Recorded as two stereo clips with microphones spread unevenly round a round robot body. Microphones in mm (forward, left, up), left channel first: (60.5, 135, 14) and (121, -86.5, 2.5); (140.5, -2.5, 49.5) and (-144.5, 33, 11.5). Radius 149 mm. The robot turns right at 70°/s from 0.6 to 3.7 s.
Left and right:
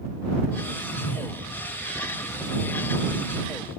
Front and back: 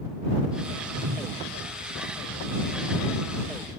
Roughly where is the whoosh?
Left.